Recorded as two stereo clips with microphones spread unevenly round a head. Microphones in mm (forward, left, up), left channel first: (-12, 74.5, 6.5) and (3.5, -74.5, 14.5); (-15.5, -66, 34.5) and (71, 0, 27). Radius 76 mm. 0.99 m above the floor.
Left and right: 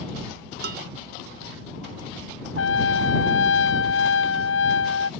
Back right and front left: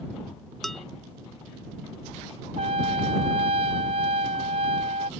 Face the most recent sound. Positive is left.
turn(degrees=90)